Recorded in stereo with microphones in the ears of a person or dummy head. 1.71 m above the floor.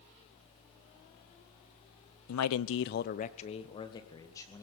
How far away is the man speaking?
About 0.7 m.